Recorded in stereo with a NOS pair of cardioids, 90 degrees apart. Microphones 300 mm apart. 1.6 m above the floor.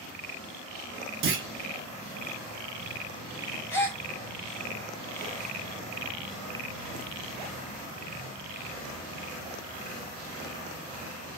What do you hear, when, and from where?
1.2 s a clunk: 45° right, 0.9 m
3.7 s a gasp: 10° left, 1.3 m